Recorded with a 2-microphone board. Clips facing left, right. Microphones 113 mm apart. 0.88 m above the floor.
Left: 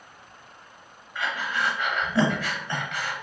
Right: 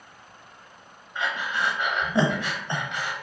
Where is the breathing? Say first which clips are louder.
Right 1 dB; 20° right (ahead or behind), 0.8 m.